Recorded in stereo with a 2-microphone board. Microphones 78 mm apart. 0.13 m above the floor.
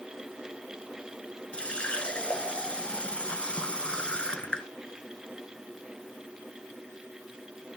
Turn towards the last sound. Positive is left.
turn(degrees=15)  # may be behind; listen again after turning